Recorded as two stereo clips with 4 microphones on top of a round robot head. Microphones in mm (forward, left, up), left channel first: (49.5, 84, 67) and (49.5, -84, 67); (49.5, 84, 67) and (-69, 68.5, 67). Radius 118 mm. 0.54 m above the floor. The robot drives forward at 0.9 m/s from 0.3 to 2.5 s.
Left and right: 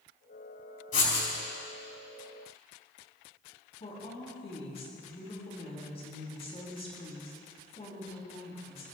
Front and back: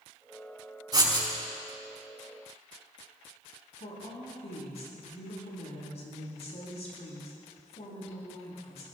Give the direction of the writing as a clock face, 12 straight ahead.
8 o'clock.